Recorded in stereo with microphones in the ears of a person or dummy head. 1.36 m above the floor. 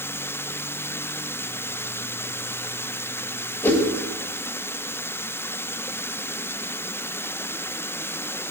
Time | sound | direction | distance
3.6 | a whoosh | 15° left (ahead or behind) | 3 m